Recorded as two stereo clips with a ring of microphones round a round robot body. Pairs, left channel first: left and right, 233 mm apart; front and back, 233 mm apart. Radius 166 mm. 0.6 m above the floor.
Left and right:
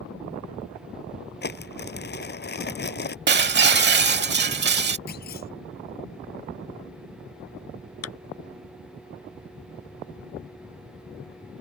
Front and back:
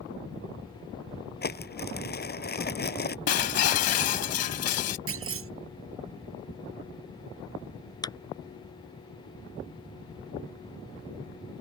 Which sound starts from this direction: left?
A clap, at 8.0 s.